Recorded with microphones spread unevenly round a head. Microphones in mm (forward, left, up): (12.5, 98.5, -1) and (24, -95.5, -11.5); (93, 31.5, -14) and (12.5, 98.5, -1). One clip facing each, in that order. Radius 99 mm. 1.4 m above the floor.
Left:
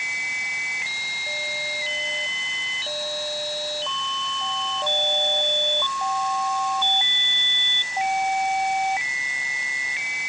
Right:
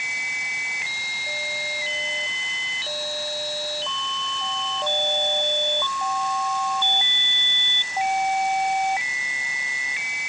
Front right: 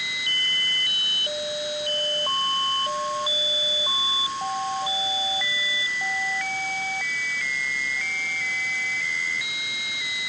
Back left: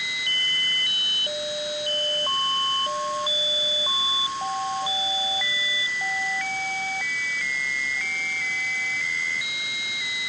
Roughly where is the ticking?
No ticking in this recording.